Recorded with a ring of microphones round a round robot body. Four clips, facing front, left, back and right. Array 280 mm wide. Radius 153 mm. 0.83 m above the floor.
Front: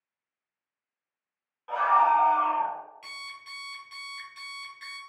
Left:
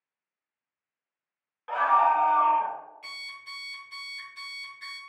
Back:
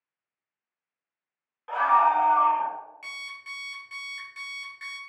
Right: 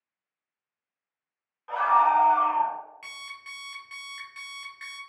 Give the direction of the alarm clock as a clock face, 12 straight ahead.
4 o'clock.